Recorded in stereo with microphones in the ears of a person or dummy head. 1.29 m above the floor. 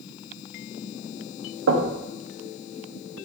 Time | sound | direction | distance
1.7 | knocking | 80° right | 1.4 m